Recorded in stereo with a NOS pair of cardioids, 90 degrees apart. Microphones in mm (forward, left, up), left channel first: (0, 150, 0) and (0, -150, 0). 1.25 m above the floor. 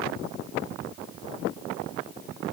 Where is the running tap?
No running tap in this recording.